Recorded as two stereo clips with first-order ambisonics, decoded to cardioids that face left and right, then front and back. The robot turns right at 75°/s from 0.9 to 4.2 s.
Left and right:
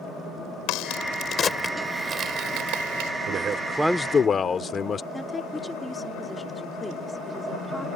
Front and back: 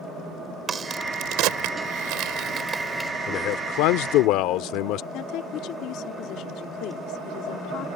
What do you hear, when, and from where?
0.7 s a crack: 115° left; by 3.1 s 80° right
3.3 s a man speaking: 45° right; by 5.0 s 25° left
5.1 s a woman speaking: 10° left